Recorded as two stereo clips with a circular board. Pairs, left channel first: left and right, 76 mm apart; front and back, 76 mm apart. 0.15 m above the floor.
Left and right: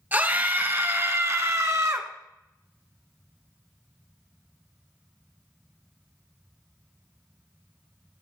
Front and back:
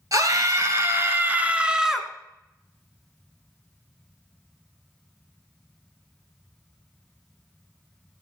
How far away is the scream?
About 2 m.